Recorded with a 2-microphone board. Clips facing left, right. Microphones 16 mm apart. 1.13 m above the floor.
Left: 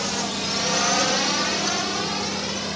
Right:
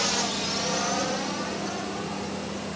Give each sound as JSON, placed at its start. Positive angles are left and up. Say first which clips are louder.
{"t": 0.0, "sound": "a drone", "louder": "left 1 dB", "side_deg": -15}